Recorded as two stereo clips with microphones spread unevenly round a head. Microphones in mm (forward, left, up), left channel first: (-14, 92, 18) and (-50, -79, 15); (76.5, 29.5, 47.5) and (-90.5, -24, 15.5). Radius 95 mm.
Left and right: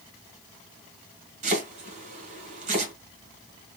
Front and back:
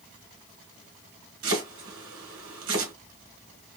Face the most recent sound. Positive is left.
turn(degrees=-145)